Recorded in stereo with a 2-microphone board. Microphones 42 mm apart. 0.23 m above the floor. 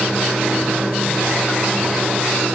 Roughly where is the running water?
Right.